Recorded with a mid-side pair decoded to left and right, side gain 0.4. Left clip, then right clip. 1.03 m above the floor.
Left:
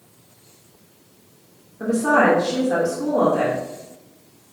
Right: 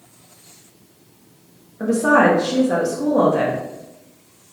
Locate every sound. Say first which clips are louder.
1.8 s a woman speaking: right 2 dB; 55° right, 1.0 m